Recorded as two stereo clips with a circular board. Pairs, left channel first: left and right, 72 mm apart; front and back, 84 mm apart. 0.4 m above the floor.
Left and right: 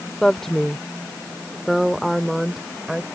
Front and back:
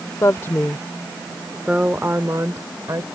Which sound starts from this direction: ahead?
A woman speaking, at 0.2 s.